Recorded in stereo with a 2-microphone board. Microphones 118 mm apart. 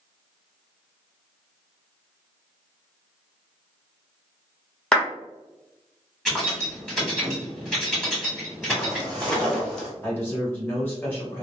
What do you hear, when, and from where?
4.9 s a clap: 5° left (ahead or behind), 1.0 m
6.2 s keys jangling: 5° left (ahead or behind), 1.4 m
8.7 s footsteps: 20° left (ahead or behind), 1.6 m; by 9.9 s centre (ahead or behind), 1.5 m
10.0 s a man speaking: 15° left (ahead or behind), 1.3 m